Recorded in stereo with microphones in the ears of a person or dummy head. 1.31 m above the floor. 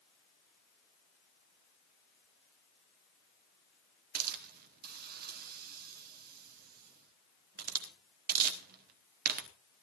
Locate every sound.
4.2 s a hiss: 50° right (ahead or behind), 1.1 m